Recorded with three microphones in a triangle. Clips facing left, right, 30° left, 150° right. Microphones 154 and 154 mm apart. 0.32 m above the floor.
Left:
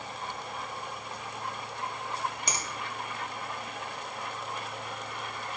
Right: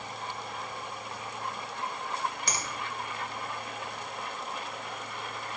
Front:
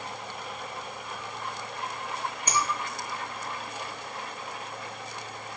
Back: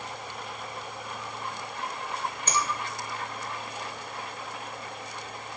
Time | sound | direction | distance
2.5 | a finger snap | 80° left | 0.6 m